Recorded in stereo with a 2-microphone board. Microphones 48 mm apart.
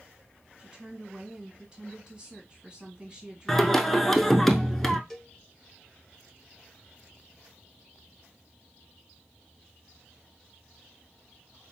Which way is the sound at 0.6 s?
20° right (ahead or behind).